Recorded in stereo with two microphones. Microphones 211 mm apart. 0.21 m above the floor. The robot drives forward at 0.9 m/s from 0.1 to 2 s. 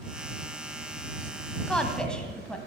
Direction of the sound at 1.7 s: 5° left (ahead or behind).